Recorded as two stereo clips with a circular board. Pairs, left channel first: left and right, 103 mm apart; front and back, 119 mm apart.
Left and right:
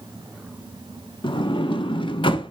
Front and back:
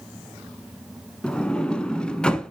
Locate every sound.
1.2 s a sliding door: 80° left, 0.8 m